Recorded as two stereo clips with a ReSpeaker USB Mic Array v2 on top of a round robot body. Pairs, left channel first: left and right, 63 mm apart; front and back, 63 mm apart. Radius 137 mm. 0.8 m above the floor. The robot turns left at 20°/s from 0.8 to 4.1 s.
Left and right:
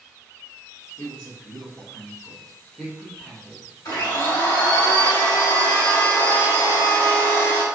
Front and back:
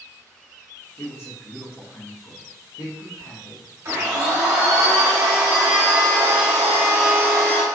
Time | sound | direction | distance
1.0 | a woman speaking | 50° left | 1.5 m
3.9 | a blender | 115° left | 1.6 m